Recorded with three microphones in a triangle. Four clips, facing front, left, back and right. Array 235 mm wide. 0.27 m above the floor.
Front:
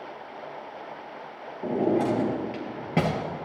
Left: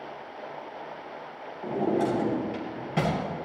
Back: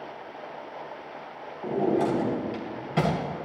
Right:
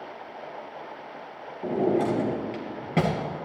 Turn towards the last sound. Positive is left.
turn(degrees=-40)